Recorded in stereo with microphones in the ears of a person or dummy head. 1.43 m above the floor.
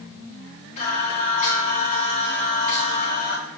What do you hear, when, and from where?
0.8 s singing: 45° left (ahead or behind), 3.5 m